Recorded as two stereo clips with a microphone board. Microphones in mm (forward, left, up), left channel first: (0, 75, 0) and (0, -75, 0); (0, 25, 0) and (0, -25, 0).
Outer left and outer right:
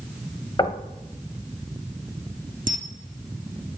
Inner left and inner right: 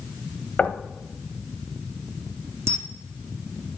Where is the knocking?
30° left (ahead or behind), 1.3 m.